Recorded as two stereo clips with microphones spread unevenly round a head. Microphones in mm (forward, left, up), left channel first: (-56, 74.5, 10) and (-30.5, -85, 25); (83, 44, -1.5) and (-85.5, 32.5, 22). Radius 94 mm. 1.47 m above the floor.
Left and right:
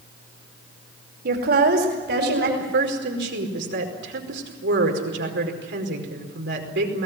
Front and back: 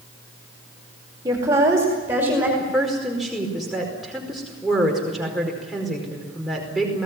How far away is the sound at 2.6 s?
About 5 m.